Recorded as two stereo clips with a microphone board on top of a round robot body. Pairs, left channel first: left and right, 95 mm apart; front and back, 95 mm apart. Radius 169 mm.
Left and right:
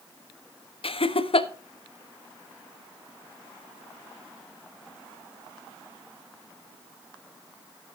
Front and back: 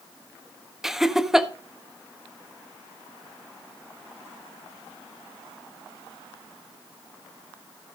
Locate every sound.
0.8 s laughter: 95° left, 1.3 m